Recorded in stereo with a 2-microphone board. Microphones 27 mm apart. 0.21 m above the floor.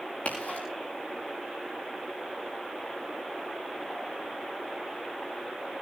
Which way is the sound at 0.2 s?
60° left (ahead or behind).